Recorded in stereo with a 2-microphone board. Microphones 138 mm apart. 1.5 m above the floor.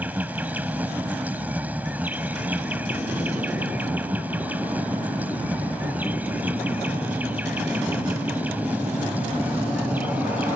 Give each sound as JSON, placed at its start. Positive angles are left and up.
{"t": 0.0, "sound": "an insect", "side_deg": -10}